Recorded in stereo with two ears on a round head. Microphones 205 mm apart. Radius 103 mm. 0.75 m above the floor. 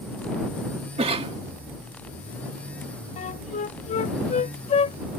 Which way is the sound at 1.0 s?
25° right (ahead or behind).